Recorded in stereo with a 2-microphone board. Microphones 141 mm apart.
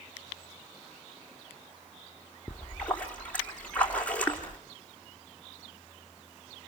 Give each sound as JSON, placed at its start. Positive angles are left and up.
{"t": 2.5, "sound": "a splash", "side_deg": 10, "distance_m": 2.5}